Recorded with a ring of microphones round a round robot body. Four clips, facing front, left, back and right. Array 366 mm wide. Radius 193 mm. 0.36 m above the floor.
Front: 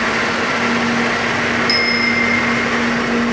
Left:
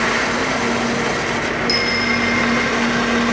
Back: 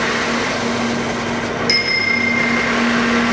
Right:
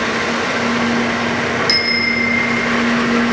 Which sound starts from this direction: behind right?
A bicycle bell, at 1.7 s.